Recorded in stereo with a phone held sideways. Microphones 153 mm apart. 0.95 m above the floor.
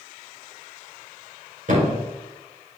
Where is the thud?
55° right (ahead or behind), 2.5 m.